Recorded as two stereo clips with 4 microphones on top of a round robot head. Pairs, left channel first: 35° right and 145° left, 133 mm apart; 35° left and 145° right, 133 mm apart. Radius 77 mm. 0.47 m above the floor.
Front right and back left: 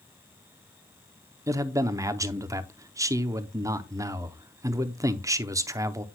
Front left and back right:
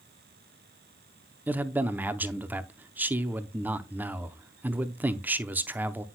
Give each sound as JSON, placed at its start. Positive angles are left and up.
{"t": 1.5, "sound": "a man speaking", "azimuth_deg": 160, "distance_m": 0.7}